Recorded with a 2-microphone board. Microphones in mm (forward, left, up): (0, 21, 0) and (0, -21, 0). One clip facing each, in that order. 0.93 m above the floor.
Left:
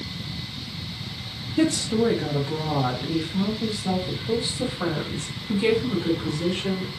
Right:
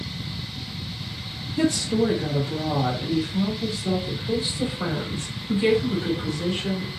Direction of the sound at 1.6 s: 25° left (ahead or behind).